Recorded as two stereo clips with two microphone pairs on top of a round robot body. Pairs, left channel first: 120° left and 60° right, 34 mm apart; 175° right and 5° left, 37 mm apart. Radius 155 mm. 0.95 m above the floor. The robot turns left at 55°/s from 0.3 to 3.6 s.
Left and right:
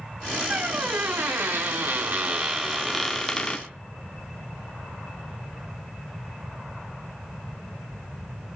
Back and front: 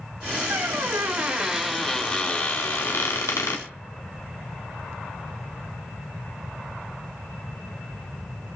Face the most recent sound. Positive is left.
turn(degrees=175)